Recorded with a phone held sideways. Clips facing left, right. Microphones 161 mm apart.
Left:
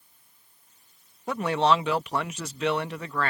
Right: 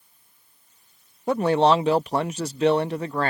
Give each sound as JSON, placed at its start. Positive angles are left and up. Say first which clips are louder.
{"t": 1.3, "sound": "a man speaking", "louder": "right 5 dB", "side_deg": -35}